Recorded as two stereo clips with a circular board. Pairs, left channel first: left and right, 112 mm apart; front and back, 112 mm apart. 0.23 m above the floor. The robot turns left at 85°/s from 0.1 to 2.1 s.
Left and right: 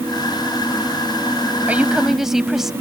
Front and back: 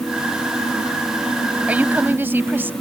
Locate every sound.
1.7 s a woman speaking: 135° right; by 2.7 s 170° right